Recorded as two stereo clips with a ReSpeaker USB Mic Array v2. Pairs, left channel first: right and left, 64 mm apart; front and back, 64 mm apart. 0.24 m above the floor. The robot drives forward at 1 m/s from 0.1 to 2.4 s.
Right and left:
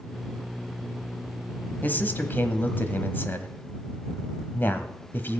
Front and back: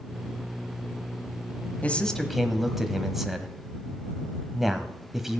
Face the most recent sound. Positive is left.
turn(degrees=-95)